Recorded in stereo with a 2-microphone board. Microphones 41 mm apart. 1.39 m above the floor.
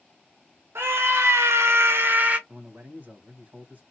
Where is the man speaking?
45° right (ahead or behind), 1.4 m.